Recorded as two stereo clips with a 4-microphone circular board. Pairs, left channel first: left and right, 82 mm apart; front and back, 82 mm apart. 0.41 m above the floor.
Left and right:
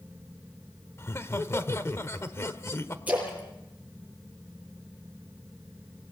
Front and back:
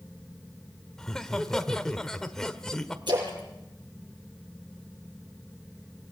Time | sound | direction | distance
1.0 | laughter | 80° left | 1.4 m
3.1 | a splash | 160° right | 6.5 m